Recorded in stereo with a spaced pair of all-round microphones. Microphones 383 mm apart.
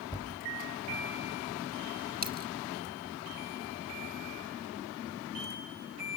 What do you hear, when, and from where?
0.1 s a thud: 10° left (ahead or behind), 3.5 m
2.2 s a dropped coin: 25° right (ahead or behind), 0.8 m